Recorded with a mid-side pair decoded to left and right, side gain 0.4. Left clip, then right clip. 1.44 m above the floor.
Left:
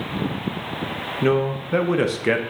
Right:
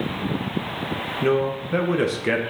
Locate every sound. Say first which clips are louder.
1.2 s a man speaking: left 1 dB; 20° left, 0.8 m